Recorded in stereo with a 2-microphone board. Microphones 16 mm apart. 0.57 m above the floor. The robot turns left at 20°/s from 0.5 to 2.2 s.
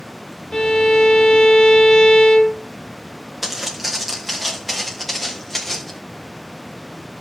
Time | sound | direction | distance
0.5 | a violin | 90° left | 2.0 m
3.4 | footsteps | 15° right (ahead or behind) | 3 m